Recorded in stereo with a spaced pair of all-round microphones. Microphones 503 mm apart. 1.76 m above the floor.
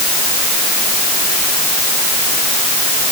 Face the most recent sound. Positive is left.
No sound to turn to.